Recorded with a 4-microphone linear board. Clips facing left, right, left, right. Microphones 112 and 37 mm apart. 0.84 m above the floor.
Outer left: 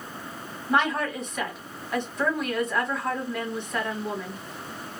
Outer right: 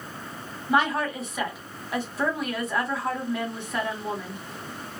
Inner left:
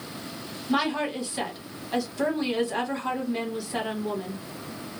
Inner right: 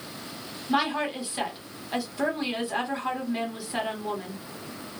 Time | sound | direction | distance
0.7 | a woman speaking | 5° right (ahead or behind) | 1.3 m